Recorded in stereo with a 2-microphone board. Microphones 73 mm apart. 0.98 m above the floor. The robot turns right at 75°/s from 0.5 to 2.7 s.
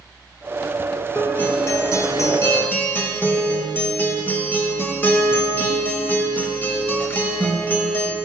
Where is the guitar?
20° left, 0.9 m; by 8.2 s 140° left, 0.9 m.